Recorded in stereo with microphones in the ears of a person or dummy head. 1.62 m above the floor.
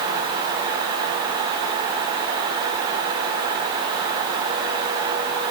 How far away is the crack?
I don't hear a crack.